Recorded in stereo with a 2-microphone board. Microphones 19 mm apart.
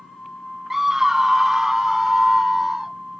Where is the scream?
20° right (ahead or behind); by 3.0 s 30° right (ahead or behind).